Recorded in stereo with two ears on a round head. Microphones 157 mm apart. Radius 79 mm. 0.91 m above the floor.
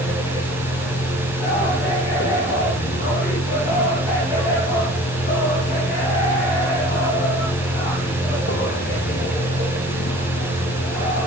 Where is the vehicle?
60° left (ahead or behind).